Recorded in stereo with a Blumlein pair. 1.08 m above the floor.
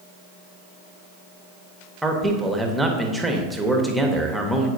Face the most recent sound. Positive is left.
turn(degrees=-5)